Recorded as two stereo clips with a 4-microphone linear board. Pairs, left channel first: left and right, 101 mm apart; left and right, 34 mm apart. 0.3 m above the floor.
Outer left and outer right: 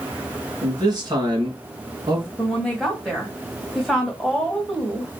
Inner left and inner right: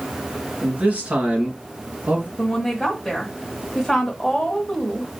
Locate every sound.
0.6 s a man speaking: 40° right (ahead or behind), 4 m; by 2.3 s 45° right (ahead or behind), 3 m
2.4 s a woman speaking: centre (ahead or behind), 2.0 m